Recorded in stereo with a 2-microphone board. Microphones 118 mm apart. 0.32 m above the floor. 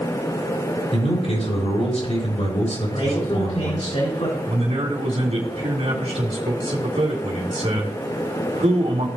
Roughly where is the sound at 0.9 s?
Left.